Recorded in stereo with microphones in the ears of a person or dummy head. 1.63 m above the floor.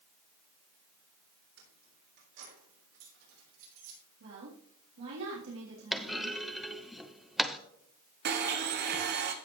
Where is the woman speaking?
85° right, 3.5 m.